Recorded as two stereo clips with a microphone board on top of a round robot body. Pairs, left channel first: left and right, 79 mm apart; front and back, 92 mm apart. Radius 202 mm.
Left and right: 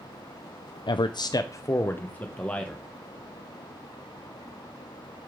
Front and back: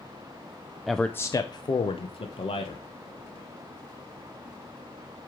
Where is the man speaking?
90° left, 0.6 m; by 2.9 s 10° left, 1.6 m.